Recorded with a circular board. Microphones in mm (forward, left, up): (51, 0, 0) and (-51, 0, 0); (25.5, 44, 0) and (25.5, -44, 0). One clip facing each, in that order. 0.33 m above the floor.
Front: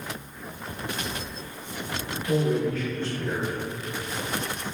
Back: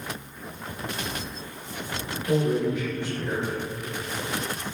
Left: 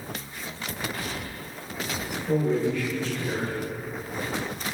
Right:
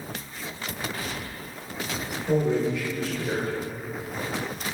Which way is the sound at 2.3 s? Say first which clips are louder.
Back 1 dB, right 1 dB; 140° right.